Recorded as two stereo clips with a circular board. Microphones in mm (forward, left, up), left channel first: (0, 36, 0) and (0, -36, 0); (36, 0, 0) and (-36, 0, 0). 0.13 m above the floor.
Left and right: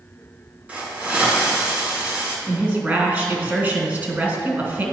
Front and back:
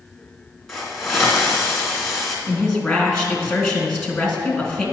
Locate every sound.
0.7 s a hiss: 95° right, 1.5 m
2.5 s a woman speaking: 75° right, 1.4 m